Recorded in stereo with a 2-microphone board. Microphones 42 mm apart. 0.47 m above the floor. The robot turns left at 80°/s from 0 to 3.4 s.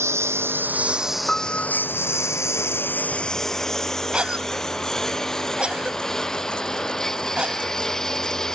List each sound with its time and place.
0.0 s a lawn mower: 85° right; by 8.5 s 10° left (ahead or behind)
1.3 s a piano: 165° left; by 1.9 s 120° left
4.1 s a cough: 25° right (ahead or behind)